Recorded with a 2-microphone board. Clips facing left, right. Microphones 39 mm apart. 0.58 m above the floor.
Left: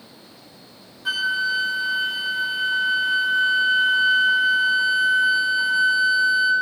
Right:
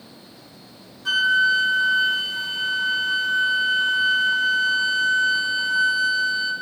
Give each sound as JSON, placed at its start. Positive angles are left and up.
{"t": 1.1, "sound": "a flute", "side_deg": 10, "distance_m": 1.5}